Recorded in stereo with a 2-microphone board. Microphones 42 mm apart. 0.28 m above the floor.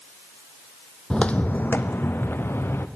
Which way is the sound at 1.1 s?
20° left (ahead or behind).